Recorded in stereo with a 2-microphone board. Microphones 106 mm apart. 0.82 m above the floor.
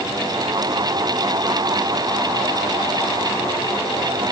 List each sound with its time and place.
Only background noise.